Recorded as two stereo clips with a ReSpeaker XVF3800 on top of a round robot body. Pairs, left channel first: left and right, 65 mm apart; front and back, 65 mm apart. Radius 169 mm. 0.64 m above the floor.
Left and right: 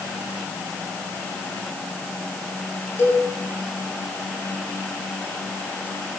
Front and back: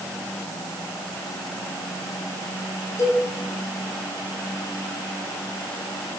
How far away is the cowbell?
About 9 m.